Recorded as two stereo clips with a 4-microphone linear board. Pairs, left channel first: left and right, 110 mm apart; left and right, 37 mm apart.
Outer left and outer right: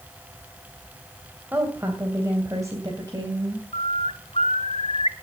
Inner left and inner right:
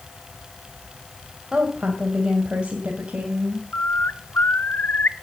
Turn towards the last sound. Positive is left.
turn(degrees=70)  # may be behind; listen again after turning